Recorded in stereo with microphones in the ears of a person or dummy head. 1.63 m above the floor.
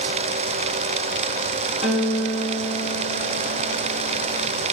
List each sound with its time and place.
1.8 s a guitar: 35° right (ahead or behind), 1.8 m